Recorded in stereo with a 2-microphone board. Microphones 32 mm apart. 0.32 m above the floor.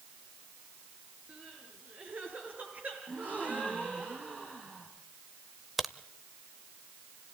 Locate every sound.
1.3 s crying: 55° right (ahead or behind), 5 m
3.1 s a gasp: 55° right (ahead or behind), 4.5 m
5.8 s a crack: 5° right (ahead or behind), 0.6 m